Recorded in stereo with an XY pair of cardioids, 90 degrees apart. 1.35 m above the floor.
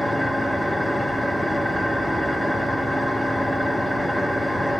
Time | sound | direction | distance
0.0 | an engine running | straight ahead | 1.4 m